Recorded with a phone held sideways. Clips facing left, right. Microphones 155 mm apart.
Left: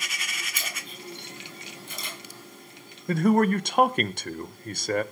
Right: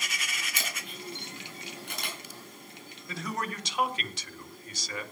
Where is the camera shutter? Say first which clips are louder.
Even; 70° right (ahead or behind), 7 m.